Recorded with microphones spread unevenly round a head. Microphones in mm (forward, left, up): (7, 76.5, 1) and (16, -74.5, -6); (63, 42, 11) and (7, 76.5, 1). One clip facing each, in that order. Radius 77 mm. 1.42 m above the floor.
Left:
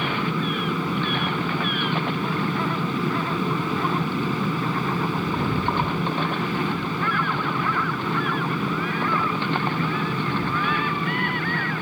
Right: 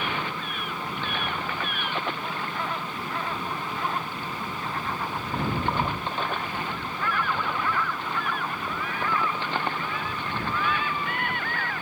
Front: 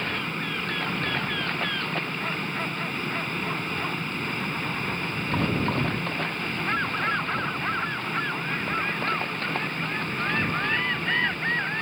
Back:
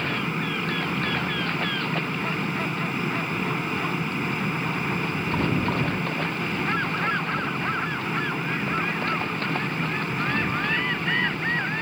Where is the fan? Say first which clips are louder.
Left 6 dB, back 3 dB; 70° left.